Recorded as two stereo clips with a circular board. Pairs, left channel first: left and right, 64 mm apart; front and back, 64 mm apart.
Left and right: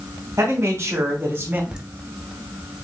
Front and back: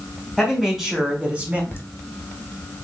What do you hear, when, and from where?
0.4 s a man speaking: 75° right, 1.3 m; by 1.6 s 130° right, 1.0 m
1.7 s laughter: 20° right, 0.9 m